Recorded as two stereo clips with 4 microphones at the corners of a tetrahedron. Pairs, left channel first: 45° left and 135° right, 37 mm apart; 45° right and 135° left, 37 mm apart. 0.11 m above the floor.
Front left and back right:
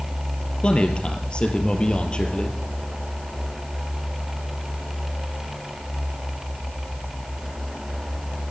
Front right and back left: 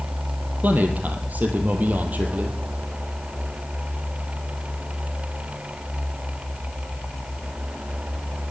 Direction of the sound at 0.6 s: 105° left.